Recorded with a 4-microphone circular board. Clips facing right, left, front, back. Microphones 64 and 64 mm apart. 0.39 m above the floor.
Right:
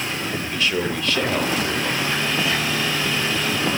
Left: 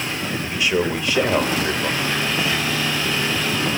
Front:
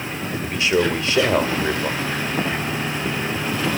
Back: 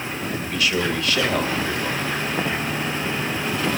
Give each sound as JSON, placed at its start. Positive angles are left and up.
{"t": 0.4, "sound": "a man speaking", "azimuth_deg": 30, "distance_m": 0.8}